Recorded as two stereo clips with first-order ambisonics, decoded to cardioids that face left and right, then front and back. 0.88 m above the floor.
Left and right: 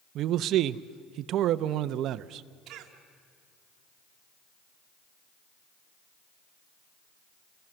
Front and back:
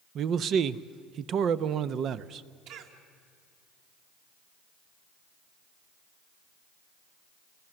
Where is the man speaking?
130° right, 0.6 m.